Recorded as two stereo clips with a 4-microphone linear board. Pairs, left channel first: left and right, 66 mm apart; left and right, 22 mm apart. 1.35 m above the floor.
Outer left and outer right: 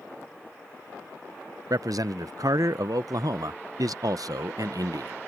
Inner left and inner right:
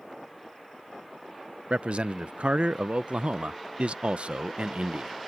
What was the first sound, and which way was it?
A man speaking, 70° right (ahead or behind).